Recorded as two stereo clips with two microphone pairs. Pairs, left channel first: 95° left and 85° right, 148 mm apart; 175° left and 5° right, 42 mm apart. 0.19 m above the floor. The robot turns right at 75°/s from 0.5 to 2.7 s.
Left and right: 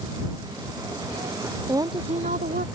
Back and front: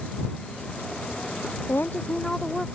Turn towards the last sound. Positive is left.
turn(degrees=-80)